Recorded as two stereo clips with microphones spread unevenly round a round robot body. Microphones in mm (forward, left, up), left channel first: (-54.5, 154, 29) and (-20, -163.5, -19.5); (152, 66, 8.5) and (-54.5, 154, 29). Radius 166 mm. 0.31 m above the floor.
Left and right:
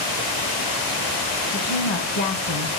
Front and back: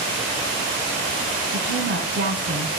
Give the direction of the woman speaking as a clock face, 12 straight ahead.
8 o'clock.